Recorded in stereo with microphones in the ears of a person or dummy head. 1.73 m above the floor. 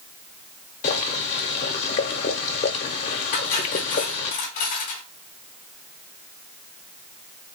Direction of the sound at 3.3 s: 50° left (ahead or behind).